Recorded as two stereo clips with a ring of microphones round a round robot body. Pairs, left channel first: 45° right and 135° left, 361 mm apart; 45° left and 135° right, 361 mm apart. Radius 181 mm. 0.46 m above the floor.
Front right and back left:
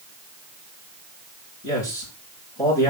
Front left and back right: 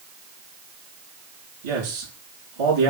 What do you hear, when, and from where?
1.6 s a man speaking: 125° right, 7 m